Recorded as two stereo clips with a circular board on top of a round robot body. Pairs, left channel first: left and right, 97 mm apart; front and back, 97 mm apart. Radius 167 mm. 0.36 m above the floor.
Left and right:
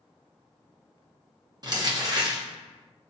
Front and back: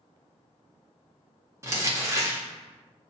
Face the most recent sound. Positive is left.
turn(degrees=-125)